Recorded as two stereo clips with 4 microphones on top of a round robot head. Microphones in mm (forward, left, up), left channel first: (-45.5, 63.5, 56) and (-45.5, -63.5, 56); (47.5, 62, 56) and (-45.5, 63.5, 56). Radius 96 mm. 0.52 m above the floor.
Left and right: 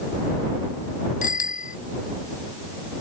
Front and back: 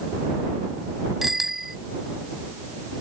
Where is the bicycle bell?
90° left.